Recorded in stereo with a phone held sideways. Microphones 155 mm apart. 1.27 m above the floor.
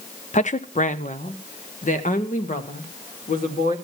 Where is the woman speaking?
50° left (ahead or behind), 0.6 m; by 3.8 s 55° left (ahead or behind), 2.5 m.